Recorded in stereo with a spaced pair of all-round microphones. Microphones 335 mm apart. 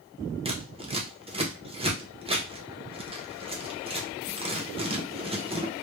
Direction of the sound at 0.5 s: 15° right (ahead or behind).